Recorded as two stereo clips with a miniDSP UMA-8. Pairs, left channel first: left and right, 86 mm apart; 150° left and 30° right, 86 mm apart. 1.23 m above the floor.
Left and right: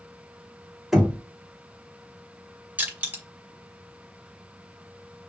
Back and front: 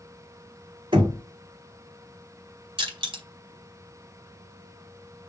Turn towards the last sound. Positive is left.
turn(degrees=-15)